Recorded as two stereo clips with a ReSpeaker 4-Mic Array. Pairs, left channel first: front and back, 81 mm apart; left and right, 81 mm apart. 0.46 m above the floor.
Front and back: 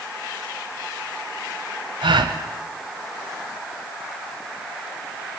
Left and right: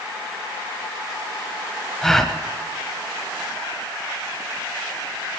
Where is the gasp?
175° left, 1.1 m.